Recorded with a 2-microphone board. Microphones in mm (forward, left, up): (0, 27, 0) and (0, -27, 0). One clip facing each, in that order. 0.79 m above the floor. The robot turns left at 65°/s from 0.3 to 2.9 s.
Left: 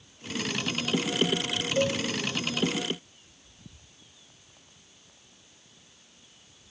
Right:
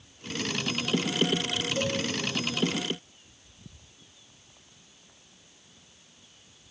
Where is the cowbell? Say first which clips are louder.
Left 5 dB; 20° left (ahead or behind), 1.2 m; by 2.0 s 5° left (ahead or behind), 1.2 m.